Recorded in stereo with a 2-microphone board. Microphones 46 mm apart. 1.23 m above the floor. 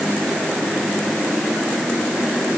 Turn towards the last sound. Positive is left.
No sound to turn to.